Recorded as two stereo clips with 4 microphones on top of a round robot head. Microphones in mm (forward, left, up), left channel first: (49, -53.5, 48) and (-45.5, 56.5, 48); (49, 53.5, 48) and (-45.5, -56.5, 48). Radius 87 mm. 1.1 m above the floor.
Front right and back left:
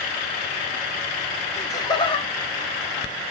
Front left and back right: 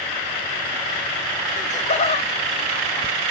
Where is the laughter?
20° left, 1.3 m; by 3.2 s 20° right, 1.6 m.